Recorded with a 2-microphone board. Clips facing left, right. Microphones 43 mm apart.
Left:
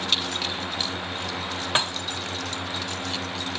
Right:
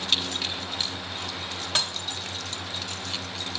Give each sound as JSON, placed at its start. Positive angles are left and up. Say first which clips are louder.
{"t": 1.8, "sound": "dishes clattering", "louder": "left 4 dB", "side_deg": 30, "distance_m": 0.8}